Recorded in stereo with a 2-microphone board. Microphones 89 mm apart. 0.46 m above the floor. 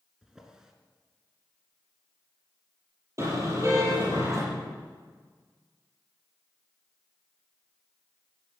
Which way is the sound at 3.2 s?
35° right (ahead or behind).